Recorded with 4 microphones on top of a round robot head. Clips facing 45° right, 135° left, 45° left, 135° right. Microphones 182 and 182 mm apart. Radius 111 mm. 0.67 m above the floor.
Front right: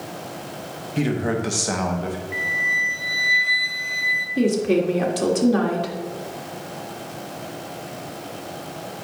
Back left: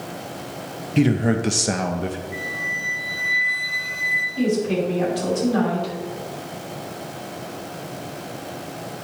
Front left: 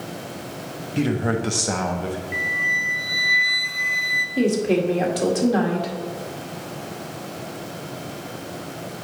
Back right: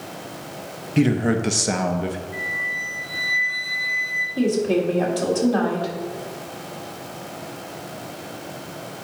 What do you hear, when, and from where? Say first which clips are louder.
1.0 s a man speaking: back left 4 dB, back right 3 dB; 175° left, 0.8 m
2.3 s a flute: even, front left 2 dB; 30° left, 0.8 m
4.4 s a woman speaking: front right 2 dB, even; 25° right, 1.7 m